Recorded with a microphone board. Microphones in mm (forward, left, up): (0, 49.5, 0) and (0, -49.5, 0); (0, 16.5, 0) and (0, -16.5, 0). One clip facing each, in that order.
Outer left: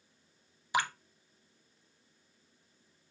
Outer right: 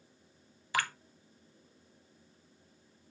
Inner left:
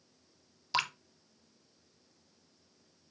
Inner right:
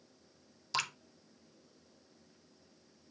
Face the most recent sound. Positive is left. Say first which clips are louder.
# outer left 2 dB, inner left 4 dB
turn(degrees=20)  # may be behind; listen again after turning